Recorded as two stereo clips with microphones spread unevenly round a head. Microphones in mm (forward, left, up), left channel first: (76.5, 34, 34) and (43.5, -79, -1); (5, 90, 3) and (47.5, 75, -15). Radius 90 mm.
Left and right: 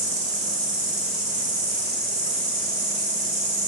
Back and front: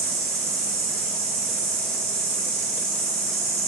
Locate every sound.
0.0 s an insect: 40° right, 1.3 m